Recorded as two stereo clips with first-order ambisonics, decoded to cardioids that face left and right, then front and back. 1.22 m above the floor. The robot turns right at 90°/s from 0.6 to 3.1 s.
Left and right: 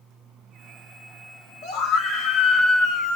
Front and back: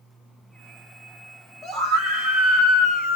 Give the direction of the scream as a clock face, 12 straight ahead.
8 o'clock.